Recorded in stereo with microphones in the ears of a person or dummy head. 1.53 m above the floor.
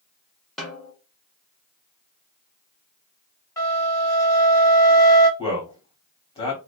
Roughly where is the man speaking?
Left.